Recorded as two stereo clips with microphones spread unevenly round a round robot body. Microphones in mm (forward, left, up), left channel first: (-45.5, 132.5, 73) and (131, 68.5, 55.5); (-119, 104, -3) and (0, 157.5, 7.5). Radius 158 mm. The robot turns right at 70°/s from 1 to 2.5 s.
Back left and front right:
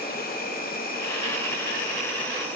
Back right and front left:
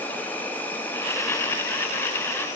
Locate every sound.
0.0 s an insect: 135° left, 0.7 m; by 2.6 s 120° right, 0.7 m